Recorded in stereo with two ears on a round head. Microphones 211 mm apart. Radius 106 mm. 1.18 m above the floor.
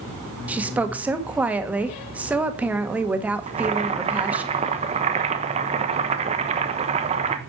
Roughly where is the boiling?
Right.